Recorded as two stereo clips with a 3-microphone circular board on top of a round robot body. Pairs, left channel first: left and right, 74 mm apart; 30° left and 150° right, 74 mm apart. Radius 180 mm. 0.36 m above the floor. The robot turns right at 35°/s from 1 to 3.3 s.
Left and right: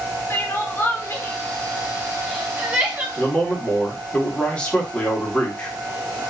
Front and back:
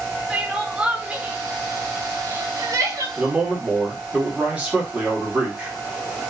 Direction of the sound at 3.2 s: 150° left.